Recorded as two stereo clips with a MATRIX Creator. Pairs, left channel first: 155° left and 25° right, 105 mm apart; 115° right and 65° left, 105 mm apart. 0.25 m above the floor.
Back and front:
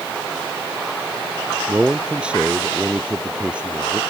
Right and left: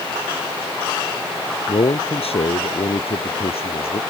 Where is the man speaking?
105° right.